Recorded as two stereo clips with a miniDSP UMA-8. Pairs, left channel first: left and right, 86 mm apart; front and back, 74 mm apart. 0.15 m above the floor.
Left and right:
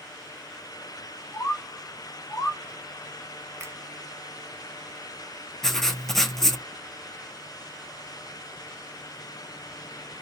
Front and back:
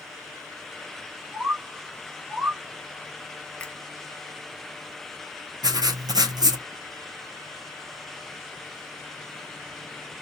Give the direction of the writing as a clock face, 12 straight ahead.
6 o'clock.